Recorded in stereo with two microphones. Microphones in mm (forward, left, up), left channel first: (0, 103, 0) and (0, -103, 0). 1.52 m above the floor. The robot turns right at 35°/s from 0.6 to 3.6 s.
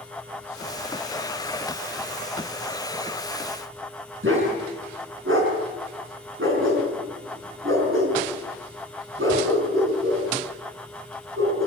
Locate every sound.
4.2 s a dog barking: 75° right (ahead or behind), 6 m